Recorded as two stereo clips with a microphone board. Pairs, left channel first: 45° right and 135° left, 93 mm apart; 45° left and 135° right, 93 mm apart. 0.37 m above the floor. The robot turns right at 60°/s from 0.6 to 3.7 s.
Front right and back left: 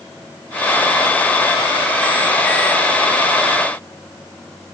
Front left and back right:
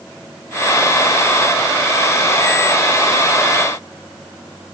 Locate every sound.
Only background noise.